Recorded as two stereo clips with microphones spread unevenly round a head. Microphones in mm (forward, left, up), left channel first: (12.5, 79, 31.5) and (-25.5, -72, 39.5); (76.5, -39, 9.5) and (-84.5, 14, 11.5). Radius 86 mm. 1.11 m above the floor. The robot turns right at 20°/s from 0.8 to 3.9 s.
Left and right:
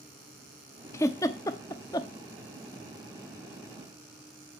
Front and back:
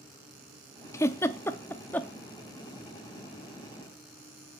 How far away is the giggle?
About 0.5 m.